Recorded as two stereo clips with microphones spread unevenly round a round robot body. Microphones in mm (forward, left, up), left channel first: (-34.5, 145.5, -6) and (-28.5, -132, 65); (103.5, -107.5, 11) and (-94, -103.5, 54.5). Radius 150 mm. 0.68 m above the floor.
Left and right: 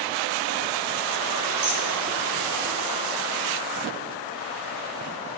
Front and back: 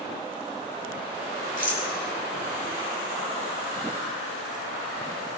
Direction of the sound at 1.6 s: 95° right.